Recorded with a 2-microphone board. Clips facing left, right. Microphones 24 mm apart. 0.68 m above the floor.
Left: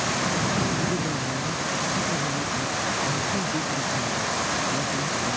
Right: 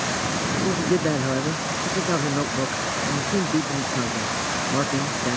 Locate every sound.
0.5 s a man speaking: 80° right